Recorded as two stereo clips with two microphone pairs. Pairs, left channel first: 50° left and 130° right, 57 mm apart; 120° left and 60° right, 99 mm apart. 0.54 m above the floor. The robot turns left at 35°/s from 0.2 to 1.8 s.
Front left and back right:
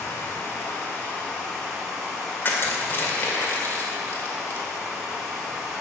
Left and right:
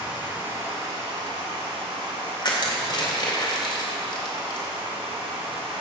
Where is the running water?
15° left, 4.5 m; by 5.8 s 40° right, 4.5 m.